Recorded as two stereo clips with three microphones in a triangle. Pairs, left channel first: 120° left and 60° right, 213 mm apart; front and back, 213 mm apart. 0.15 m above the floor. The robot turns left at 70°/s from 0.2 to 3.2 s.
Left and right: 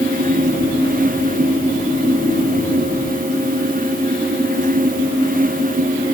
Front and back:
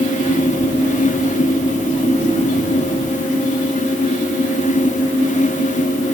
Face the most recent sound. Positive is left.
No sound to turn to.